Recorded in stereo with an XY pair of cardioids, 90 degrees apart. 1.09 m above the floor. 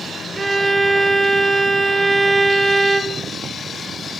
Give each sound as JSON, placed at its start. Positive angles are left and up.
{"t": 0.3, "sound": "a violin", "azimuth_deg": -30, "distance_m": 0.9}